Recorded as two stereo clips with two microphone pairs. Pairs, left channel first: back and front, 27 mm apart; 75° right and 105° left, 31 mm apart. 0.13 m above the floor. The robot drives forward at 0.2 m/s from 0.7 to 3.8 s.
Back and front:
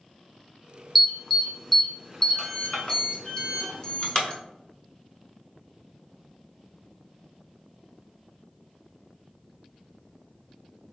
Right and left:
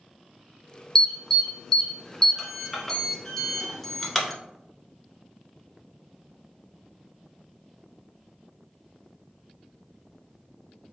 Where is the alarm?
80° right, 0.9 m; by 4.3 s 150° right, 1.0 m.